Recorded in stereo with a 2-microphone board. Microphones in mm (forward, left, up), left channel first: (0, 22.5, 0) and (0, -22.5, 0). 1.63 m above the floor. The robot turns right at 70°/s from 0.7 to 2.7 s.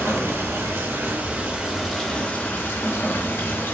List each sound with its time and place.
0.0 s running water: 85° right, 0.7 m; by 3.7 s 55° left, 0.7 m